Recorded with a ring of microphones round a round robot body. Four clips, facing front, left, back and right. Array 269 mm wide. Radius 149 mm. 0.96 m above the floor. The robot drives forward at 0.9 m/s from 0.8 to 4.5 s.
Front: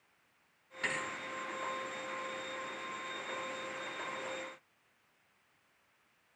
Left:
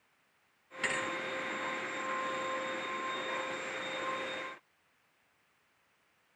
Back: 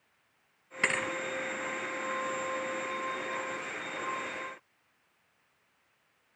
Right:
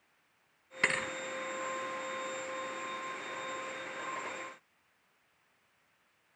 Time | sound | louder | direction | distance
0.8 | a thud | right 1 dB, back 7 dB | 140° right | 0.9 m